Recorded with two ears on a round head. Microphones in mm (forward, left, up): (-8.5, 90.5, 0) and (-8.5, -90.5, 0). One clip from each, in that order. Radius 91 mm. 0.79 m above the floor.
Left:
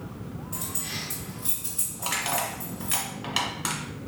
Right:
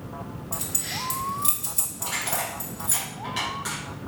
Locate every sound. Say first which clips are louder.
0.5 s keys jangling: right 4 dB; 60° right (ahead or behind), 1.8 m
2.0 s crushing: left 2 dB; 45° left (ahead or behind), 1.5 m